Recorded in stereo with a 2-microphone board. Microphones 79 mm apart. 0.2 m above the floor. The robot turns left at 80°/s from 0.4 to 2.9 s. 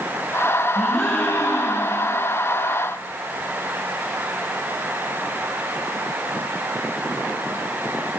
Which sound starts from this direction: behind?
A gasp, at 0.8 s.